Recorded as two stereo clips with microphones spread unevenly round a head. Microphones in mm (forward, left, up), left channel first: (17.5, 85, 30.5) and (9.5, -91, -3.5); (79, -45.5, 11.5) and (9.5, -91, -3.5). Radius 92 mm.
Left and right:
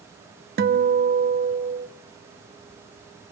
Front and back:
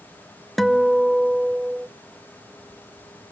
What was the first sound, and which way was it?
A guitar, 55° right.